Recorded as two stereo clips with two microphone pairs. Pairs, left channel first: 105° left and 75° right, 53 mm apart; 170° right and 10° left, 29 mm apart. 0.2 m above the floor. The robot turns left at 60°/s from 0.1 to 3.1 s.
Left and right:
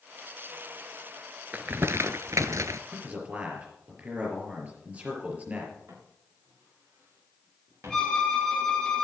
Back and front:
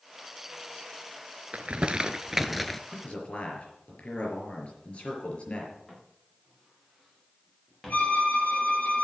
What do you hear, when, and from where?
1.5 s crumpling: 20° right, 0.7 m; by 2.8 s 95° right, 0.7 m
2.9 s a man speaking: 125° right, 4.5 m; by 5.7 s 135° right, 4.5 m
5.9 s footsteps: 100° right, 8 m; by 8.1 s 90° right, 6.5 m
7.9 s a violin: 175° right, 4 m